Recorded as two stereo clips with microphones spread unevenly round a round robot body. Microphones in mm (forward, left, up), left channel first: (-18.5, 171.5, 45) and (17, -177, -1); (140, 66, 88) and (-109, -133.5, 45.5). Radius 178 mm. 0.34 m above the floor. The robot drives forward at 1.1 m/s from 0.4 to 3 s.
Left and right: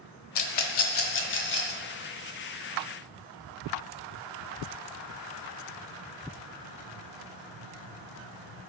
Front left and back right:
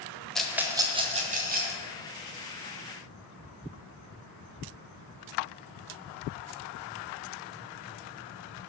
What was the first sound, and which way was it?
A rattle, 130° left.